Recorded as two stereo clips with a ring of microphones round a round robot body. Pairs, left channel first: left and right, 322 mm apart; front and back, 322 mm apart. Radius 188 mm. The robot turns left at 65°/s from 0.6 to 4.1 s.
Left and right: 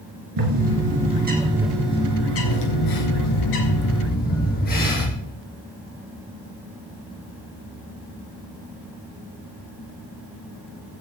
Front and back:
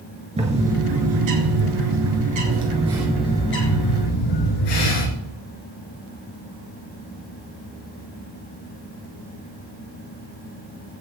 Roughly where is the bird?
Right.